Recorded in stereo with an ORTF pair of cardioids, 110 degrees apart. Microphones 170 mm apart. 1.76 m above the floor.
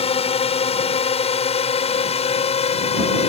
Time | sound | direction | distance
0.0 | a drone | 35° left | ?